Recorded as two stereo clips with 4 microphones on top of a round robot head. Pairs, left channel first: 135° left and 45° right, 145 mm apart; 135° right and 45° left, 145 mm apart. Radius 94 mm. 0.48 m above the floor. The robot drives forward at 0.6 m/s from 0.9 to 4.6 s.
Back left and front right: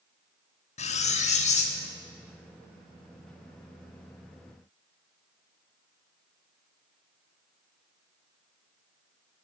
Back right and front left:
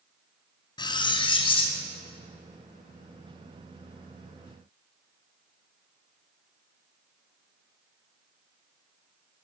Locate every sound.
0.8 s cutlery clinking: 170° left, 0.6 m; by 1.8 s 175° left, 1.1 m